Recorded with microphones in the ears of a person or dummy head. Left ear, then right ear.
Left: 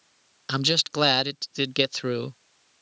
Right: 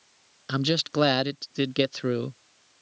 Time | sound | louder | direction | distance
0.5 | a man speaking | left 3 dB | 20° left (ahead or behind) | ?